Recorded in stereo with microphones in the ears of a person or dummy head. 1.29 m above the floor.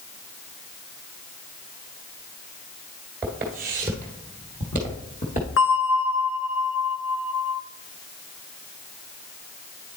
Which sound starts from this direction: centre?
Footsteps, at 3.2 s.